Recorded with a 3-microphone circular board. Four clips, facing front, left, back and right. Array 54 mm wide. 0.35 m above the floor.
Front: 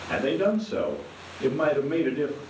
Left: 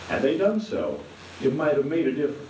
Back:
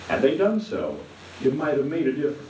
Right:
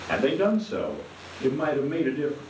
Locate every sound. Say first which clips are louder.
0.1 s a man speaking: left 1 dB, back 4 dB; 145° right, 1.1 m; by 2.4 s 40° left, 2 m